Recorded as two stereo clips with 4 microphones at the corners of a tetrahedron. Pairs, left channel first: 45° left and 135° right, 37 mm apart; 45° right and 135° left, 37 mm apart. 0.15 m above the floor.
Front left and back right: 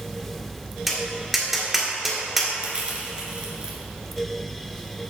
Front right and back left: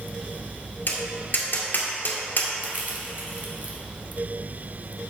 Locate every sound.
0.9 s tapping: 50° right, 1.8 m
2.6 s crushing: 170° left, 1.8 m